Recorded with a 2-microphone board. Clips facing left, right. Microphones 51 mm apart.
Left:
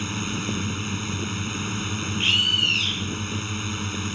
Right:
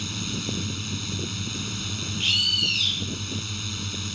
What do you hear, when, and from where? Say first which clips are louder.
0.0 s a drone: left 3 dB; 30° left (ahead or behind)
2.2 s a bird: left 3 dB; 30° left (ahead or behind)